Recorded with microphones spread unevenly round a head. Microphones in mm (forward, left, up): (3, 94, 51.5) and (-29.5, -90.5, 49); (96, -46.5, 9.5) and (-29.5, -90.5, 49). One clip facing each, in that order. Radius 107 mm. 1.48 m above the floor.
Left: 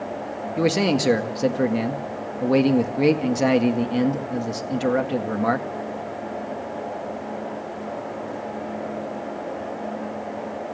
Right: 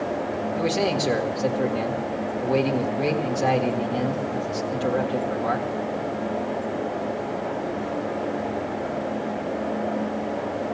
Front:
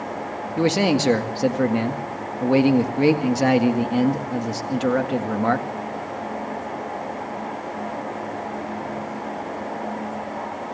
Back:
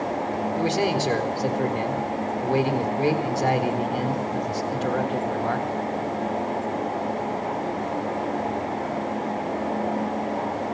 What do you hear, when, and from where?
0.6 s a man speaking: 50° left, 1.8 m